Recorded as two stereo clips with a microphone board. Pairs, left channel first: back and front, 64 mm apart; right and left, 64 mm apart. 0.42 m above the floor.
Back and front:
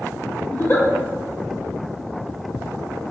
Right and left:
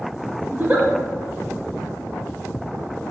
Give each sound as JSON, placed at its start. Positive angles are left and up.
{"t": 0.5, "sound": "a giggle", "azimuth_deg": 140, "distance_m": 0.6}